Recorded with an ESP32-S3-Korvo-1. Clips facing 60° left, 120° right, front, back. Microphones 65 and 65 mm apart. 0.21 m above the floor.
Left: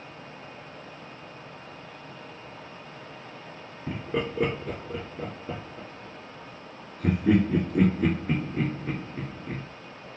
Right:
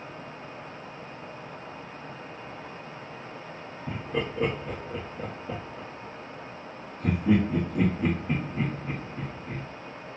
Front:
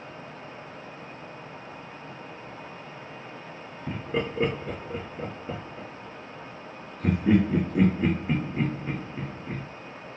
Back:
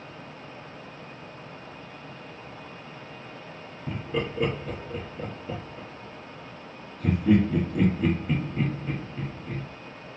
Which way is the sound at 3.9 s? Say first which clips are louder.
Left 1 dB, front 1 dB; 40° left.